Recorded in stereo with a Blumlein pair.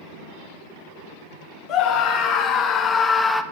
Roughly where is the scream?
Ahead left.